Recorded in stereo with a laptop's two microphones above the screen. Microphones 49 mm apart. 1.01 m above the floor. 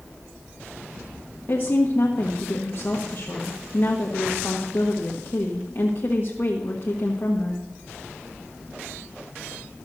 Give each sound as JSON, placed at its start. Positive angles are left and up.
{"t": 1.5, "sound": "a woman speaking", "side_deg": 45, "distance_m": 1.3}